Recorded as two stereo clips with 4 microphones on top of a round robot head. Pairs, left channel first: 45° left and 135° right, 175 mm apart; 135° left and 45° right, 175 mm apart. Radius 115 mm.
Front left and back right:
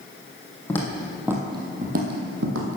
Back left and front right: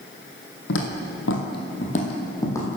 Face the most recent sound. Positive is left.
turn(degrees=-145)